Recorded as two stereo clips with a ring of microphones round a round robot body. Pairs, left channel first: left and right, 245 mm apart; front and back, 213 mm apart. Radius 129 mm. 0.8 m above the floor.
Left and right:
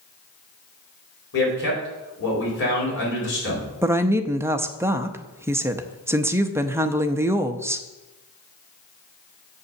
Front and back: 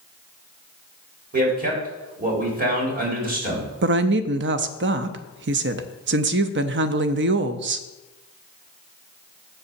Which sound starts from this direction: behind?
A woman speaking, at 3.8 s.